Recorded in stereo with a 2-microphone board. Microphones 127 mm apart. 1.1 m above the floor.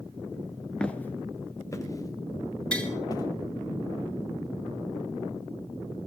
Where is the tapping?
10° left (ahead or behind), 4.5 m.